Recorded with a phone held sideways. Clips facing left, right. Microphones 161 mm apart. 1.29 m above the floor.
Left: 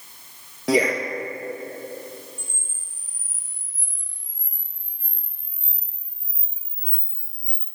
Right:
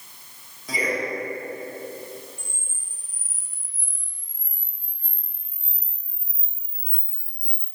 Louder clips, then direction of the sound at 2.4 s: Left 1 dB; 80° left.